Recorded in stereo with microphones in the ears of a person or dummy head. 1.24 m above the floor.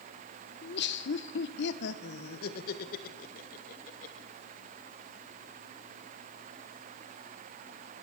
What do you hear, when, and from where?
0.6 s laughter: 50° left (ahead or behind), 1.1 m; by 4.3 s 45° left (ahead or behind), 2.5 m